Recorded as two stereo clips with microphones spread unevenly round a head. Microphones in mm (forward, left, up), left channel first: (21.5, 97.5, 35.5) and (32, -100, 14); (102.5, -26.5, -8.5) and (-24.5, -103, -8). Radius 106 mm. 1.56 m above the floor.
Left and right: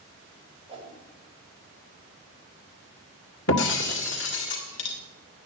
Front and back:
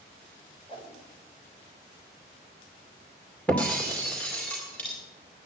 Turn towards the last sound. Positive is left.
turn(degrees=115)